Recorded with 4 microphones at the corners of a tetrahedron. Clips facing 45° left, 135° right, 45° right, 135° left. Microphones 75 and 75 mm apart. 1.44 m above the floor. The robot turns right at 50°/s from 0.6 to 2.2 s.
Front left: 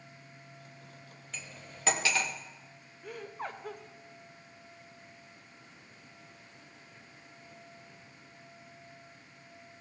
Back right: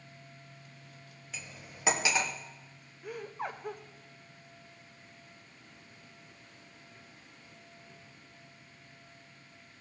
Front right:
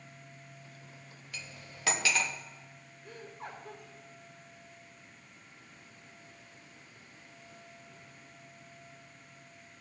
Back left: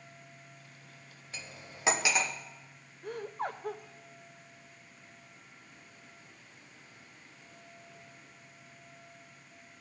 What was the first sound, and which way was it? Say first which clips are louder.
Cutlery clinking: even, back left 1 dB; 145° left.